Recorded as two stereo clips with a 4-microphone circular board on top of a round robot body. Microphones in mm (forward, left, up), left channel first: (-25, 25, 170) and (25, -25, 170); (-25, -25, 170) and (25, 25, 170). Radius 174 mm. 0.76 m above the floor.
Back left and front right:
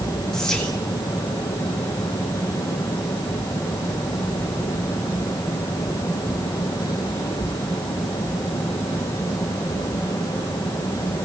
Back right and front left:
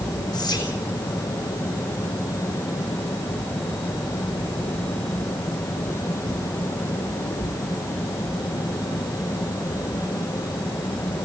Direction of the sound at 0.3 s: 145° right.